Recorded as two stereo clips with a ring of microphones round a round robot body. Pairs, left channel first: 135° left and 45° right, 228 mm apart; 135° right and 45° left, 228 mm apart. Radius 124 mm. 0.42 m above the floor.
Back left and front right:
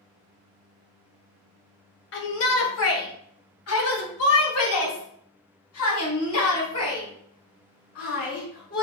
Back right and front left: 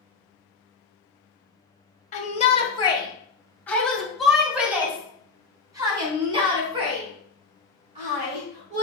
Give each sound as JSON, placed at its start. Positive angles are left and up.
{"t": 2.1, "sound": "a shout", "azimuth_deg": 165, "distance_m": 2.5}